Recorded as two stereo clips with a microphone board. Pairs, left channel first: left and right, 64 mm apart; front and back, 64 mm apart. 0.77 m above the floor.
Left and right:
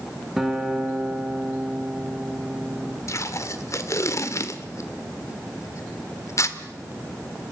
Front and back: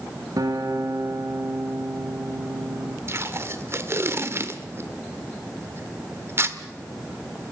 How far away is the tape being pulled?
About 1.4 m.